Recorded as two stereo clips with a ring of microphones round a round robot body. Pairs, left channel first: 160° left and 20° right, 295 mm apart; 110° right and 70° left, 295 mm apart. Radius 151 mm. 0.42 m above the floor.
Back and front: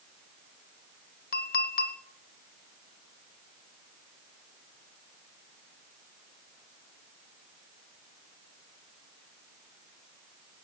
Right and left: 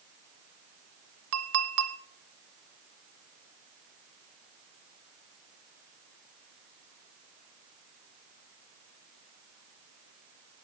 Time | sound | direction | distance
1.3 | a clink | 100° left | 1.3 m